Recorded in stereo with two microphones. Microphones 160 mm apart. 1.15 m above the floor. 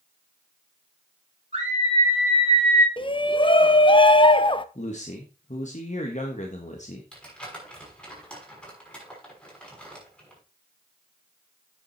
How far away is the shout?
About 0.7 m.